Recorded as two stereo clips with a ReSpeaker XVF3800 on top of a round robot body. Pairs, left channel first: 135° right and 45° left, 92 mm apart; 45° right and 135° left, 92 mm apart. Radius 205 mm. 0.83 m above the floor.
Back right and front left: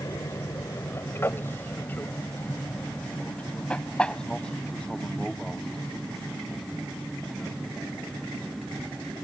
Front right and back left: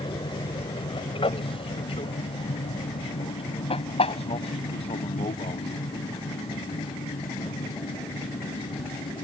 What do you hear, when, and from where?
0.0 s an aircraft: 80° right; by 9.2 s 45° right